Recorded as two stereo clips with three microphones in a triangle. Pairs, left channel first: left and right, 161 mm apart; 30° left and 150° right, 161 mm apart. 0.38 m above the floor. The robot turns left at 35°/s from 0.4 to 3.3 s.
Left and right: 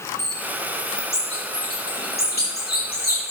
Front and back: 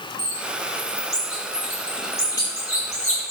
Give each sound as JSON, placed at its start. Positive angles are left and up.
{"t": 0.2, "sound": "a bird", "azimuth_deg": 165, "distance_m": 6.0}